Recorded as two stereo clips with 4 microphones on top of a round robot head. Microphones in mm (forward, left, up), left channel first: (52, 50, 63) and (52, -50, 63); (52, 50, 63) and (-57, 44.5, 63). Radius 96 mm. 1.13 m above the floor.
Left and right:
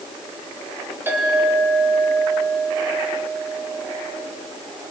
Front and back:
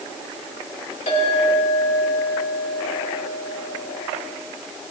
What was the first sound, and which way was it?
A clink, 20° right.